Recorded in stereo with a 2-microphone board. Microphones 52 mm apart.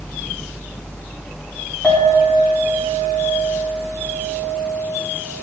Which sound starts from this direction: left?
A clink, at 1.8 s.